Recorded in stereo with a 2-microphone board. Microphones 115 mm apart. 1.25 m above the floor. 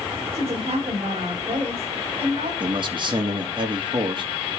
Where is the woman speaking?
55° right (ahead or behind), 6.5 m.